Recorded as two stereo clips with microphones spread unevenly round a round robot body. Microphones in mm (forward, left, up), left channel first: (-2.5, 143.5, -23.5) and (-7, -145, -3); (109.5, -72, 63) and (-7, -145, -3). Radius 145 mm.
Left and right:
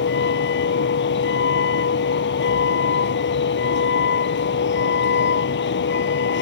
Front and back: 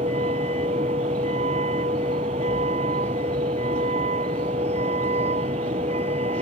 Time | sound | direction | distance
0.0 | a vehicle | 145° left | ?